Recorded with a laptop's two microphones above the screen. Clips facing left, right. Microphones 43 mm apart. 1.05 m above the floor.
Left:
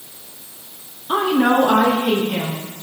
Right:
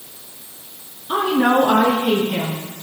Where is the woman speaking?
20° left (ahead or behind), 0.9 m; by 2.7 s 5° right (ahead or behind), 2 m.